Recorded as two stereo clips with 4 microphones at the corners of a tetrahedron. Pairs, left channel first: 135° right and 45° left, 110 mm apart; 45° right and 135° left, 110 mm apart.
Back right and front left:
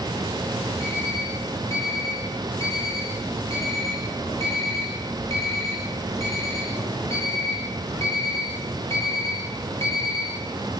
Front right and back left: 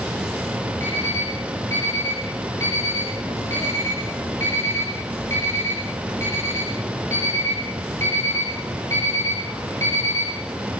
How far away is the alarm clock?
About 8.5 m.